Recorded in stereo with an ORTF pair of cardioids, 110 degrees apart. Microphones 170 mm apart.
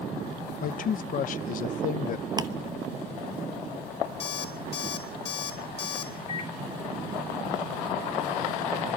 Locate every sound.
0.6 s a man speaking: 50° left, 1.1 m
2.4 s ticking: 25° right, 1.1 m
4.2 s an alarm clock: 35° left, 5 m
6.3 s a microwave: 45° left, 5 m